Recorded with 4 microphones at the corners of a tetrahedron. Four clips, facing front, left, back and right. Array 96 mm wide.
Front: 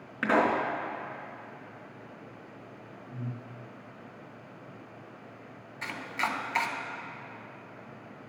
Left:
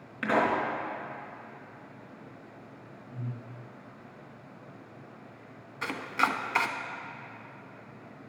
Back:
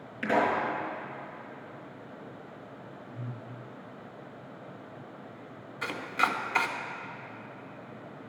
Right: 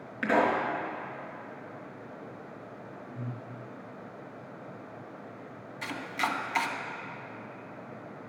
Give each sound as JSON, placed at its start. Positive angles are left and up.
{"t": 0.2, "sound": "a pop", "azimuth_deg": 5, "distance_m": 3.0}
{"t": 3.1, "sound": "breathing", "azimuth_deg": 30, "distance_m": 2.5}
{"t": 5.8, "sound": "chopping", "azimuth_deg": 125, "distance_m": 0.7}